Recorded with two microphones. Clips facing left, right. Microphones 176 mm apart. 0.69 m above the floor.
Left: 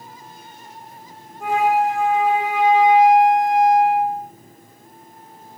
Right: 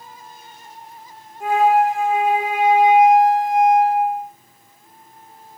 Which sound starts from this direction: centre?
A flute, at 1.4 s.